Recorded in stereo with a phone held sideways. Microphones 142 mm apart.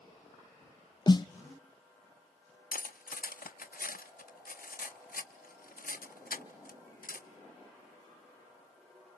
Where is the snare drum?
30° left (ahead or behind), 0.6 m.